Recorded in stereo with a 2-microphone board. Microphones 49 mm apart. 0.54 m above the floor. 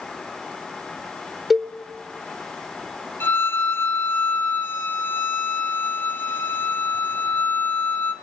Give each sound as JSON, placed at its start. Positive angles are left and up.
{"t": 1.5, "sound": "a cowbell", "side_deg": -5, "distance_m": 1.6}
{"t": 3.2, "sound": "a violin", "side_deg": 50, "distance_m": 3.0}